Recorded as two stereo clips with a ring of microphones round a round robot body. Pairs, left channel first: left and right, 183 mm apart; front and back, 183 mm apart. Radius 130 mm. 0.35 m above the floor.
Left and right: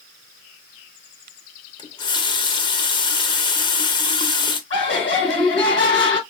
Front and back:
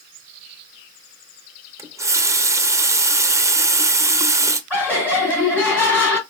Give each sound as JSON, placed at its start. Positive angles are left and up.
{"t": 1.8, "sound": "a running tap", "azimuth_deg": 120, "distance_m": 0.5}
{"t": 4.7, "sound": "laughter", "azimuth_deg": 80, "distance_m": 3.0}